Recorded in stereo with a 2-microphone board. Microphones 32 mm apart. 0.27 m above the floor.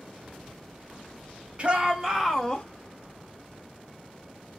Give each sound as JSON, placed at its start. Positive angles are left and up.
{"t": 1.6, "sound": "a shout", "side_deg": -35, "distance_m": 1.3}